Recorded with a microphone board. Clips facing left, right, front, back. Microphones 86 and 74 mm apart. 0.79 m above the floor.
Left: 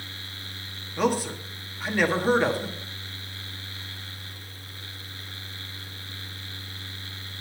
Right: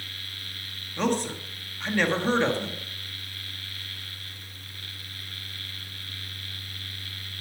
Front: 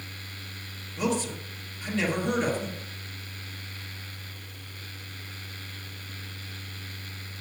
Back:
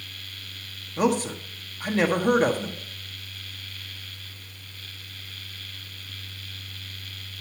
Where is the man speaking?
170° left, 1.6 m.